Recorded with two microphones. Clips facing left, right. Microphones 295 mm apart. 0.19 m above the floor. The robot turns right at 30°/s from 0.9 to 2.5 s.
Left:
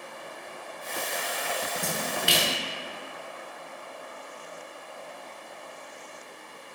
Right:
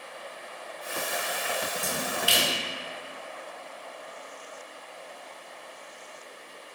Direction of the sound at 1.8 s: 80° left.